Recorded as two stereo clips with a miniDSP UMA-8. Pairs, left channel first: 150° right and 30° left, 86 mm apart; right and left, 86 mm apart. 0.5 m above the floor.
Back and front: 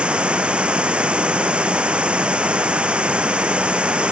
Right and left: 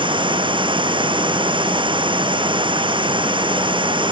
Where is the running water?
105° left.